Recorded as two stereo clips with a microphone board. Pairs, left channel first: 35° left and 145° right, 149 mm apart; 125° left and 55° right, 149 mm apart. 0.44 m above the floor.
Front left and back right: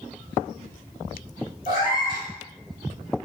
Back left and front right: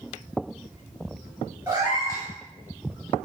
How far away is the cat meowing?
About 1.4 m.